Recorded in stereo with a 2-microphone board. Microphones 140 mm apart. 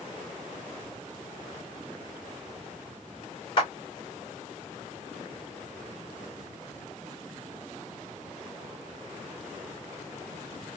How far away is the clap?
About 2.0 m.